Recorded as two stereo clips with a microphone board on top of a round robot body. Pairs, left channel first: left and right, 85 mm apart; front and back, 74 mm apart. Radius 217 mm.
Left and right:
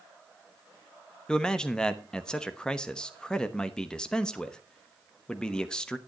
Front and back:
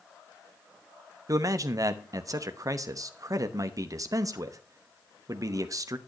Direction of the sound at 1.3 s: 170° left.